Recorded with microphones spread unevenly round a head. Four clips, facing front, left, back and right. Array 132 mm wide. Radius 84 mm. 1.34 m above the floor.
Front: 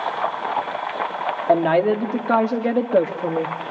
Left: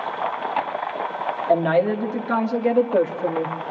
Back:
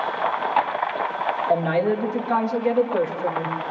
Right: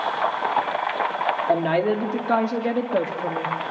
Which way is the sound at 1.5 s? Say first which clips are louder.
Left 4 dB, front 5 dB; 5° left.